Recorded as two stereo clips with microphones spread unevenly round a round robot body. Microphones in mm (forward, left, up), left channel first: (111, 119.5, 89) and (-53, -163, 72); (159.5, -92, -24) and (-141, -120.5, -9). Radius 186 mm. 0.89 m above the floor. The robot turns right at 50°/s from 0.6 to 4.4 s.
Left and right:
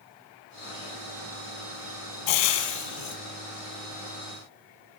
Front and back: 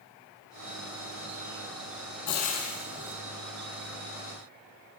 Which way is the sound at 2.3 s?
65° left.